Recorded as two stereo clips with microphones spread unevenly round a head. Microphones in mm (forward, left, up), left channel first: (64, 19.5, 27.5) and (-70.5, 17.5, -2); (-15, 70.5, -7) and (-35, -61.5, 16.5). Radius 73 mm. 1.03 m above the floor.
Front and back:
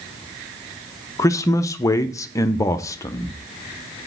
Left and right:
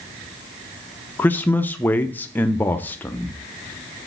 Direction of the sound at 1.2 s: 65° left.